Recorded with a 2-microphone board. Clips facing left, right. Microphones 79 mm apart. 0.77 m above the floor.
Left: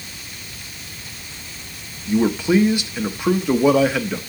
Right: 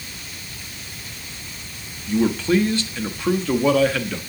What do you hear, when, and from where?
2.1 s a man speaking: 15° left (ahead or behind), 0.7 m